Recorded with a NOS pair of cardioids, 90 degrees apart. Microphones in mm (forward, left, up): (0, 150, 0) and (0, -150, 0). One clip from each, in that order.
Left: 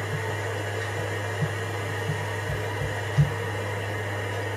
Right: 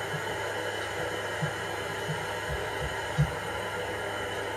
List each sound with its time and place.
0.0 s a machine running: 55° left, 5 m